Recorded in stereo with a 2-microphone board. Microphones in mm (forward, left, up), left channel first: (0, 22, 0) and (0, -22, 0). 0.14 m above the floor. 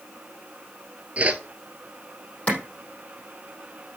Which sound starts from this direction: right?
A whoosh, at 1.2 s.